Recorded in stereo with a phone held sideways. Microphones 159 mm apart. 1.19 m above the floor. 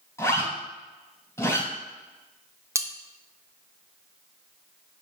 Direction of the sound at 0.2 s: 15° left (ahead or behind).